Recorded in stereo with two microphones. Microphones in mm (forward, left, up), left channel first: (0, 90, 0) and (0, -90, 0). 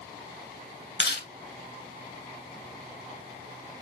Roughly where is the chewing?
Left.